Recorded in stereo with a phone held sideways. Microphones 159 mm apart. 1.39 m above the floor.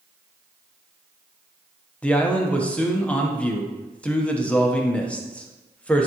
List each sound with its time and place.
2.0 s a man speaking: 5° left (ahead or behind), 1.0 m